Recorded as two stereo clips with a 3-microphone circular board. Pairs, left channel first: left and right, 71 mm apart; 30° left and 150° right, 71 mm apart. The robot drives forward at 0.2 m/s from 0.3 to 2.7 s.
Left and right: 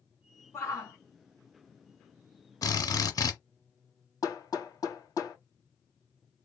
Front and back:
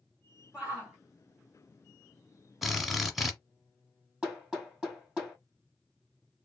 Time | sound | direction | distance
0.5 | a shout | 145° left | 1.7 m
2.6 | a drill | 120° left | 1.1 m
4.2 | hammering | 130° left | 2.5 m